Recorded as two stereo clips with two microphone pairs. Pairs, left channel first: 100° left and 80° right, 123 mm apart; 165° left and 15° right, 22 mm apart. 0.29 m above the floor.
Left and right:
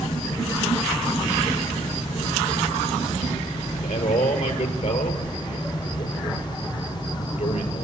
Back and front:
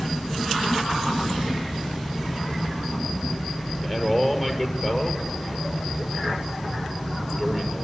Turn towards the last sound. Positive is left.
turn(degrees=95)